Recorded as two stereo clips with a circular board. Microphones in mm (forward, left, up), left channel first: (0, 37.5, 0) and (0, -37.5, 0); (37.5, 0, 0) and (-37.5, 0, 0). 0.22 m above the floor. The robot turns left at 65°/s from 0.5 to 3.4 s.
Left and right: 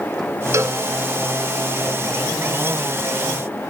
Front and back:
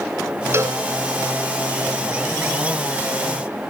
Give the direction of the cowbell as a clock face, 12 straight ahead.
4 o'clock.